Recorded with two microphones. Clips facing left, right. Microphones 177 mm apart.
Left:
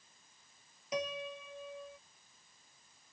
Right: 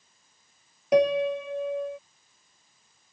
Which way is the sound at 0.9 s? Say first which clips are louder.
Right 18 dB; 65° right (ahead or behind).